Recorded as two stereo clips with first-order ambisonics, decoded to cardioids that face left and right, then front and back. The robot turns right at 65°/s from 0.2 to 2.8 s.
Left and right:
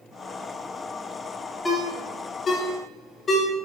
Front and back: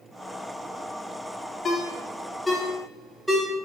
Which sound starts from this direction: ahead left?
A ringtone, at 1.6 s.